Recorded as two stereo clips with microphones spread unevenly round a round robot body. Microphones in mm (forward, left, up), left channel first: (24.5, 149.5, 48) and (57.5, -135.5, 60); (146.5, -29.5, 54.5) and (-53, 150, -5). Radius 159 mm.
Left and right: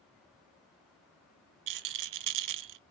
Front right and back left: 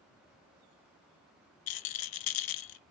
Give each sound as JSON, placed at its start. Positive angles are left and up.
{"t": 1.7, "sound": "a rattle", "azimuth_deg": -60, "distance_m": 0.6}